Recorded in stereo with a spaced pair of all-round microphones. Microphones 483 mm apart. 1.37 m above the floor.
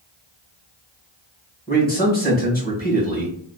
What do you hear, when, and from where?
1.7 s a man speaking: 20° left (ahead or behind), 1.4 m